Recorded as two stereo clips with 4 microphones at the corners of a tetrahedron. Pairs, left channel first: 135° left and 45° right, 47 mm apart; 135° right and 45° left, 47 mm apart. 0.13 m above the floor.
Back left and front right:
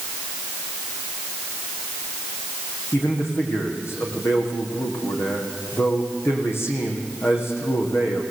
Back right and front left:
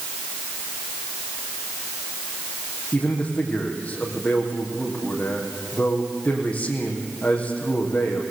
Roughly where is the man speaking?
Behind.